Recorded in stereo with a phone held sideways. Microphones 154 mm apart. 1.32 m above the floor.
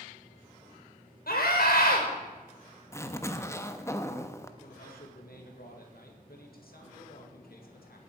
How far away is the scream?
About 4 m.